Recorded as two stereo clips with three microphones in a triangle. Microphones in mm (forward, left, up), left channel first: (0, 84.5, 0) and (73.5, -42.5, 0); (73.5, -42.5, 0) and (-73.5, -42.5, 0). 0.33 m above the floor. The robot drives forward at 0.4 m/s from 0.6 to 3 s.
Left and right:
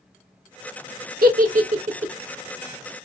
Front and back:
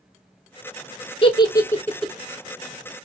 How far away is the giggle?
About 0.6 m.